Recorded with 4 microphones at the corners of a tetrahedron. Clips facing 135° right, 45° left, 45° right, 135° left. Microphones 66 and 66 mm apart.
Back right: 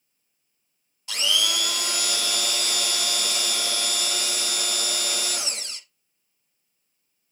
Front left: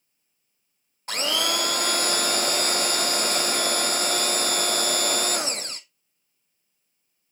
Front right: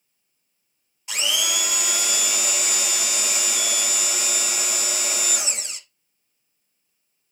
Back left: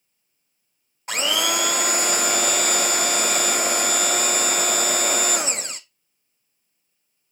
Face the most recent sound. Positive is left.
turn(degrees=95)